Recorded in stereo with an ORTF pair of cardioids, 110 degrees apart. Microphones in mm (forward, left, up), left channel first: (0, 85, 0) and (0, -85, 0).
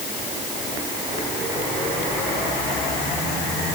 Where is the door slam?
No door slam in this recording.